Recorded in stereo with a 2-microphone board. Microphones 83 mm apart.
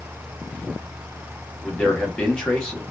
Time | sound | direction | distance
1.6 | a man speaking | 10° left (ahead or behind) | 1.0 m